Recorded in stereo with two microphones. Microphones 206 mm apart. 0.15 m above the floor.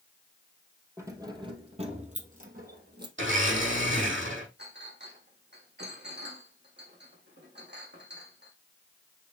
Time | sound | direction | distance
1.0 | keys jangling | 15° right (ahead or behind) | 2.5 m
3.2 | a blender | 70° right (ahead or behind) | 5.5 m
4.6 | a clink | 55° right (ahead or behind) | 4.5 m